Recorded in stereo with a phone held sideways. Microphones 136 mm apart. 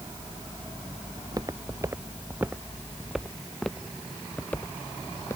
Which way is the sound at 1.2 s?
35° right (ahead or behind).